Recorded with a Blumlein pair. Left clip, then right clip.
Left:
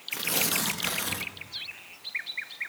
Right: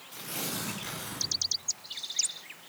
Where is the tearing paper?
30° left, 1.7 m.